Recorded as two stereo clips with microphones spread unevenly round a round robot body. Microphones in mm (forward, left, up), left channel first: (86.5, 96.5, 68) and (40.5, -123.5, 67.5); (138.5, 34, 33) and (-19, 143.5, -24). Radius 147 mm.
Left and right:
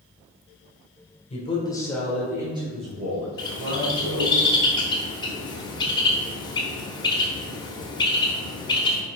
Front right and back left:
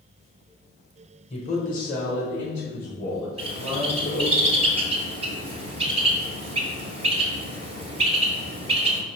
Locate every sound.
1.3 s a man speaking: 30° left, 2.0 m; by 4.4 s 90° right, 3 m
3.4 s a bird: 140° left, 1.2 m